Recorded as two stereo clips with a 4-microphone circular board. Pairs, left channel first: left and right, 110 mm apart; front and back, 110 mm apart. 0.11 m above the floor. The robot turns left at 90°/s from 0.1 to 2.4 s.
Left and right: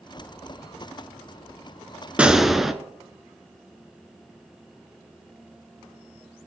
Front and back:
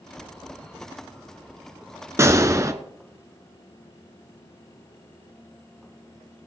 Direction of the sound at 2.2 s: 155° right.